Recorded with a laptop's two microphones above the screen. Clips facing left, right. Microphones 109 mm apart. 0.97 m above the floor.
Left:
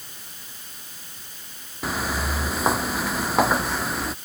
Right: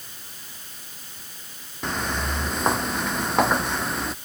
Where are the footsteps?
5° left (ahead or behind); by 4.1 s centre (ahead or behind).